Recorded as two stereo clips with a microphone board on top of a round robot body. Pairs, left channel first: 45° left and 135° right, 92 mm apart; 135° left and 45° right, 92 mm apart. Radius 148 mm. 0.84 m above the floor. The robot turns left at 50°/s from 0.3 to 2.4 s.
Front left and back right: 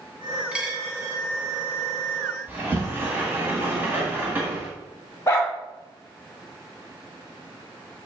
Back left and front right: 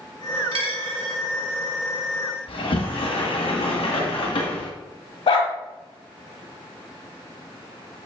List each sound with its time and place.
0.5 s a dropped coin: 55° right, 2 m; by 1.1 s 85° right, 2 m
2.5 s a sliding door: 160° left, 1.5 m
5.3 s a dog barking: 110° left, 1.4 m